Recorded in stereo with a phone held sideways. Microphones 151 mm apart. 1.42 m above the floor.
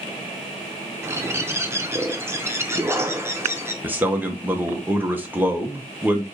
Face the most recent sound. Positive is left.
turn(degrees=-10)  # may be behind; listen again after turning